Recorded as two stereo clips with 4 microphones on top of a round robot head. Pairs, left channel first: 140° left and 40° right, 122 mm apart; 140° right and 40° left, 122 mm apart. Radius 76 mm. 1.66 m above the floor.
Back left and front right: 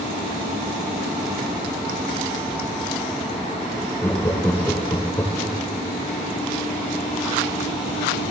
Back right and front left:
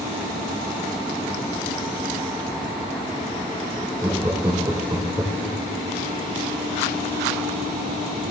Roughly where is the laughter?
Left.